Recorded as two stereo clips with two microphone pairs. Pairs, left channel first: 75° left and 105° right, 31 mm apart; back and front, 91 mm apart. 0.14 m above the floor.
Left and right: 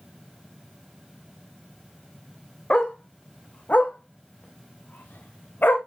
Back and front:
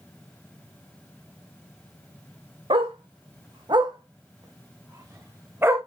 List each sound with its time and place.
2.7 s a dog barking: 15° left, 2.5 m; by 5.8 s 65° left, 3.5 m